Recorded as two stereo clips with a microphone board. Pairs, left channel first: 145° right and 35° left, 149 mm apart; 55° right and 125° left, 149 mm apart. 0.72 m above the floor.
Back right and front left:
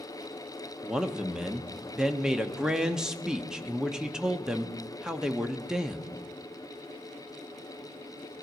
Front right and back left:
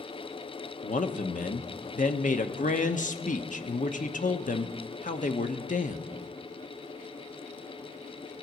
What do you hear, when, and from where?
0.8 s a man speaking: 50° right, 1.0 m